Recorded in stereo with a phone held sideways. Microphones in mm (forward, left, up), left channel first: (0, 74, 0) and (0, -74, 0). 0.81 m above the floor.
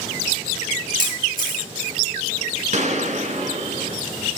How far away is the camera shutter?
About 6.5 m.